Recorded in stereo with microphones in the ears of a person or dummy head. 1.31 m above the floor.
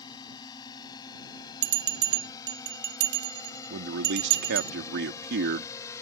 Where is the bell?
60° right (ahead or behind).